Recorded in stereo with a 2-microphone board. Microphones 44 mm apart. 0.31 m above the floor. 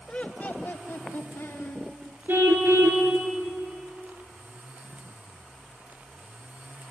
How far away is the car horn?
About 2.5 m.